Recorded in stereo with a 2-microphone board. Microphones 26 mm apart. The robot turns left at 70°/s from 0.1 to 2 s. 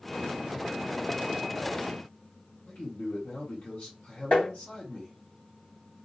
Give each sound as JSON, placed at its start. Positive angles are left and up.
{"t": 2.7, "sound": "a man speaking", "side_deg": 70, "distance_m": 1.2}
{"t": 4.3, "sound": "tapping", "side_deg": 70, "distance_m": 1.3}